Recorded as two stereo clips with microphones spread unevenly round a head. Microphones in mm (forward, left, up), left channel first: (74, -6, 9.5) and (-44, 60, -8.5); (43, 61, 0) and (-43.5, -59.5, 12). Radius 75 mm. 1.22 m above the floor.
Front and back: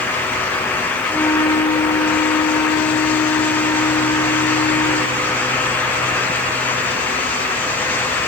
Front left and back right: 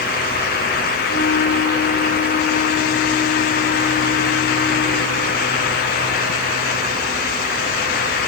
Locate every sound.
1.1 s a flute: 30° left, 1.8 m